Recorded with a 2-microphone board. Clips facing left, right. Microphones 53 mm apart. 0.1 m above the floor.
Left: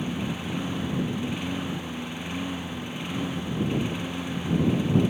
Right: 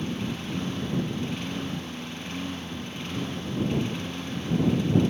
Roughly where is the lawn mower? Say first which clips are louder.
Left 1 dB; centre.